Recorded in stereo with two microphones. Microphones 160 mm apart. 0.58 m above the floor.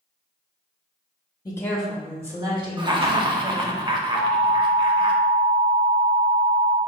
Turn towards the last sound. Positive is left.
turn(degrees=-25)  # may be behind; listen again after turning